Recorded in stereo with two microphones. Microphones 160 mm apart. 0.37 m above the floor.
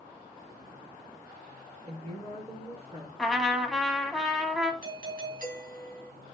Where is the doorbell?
60° right (ahead or behind), 3 m.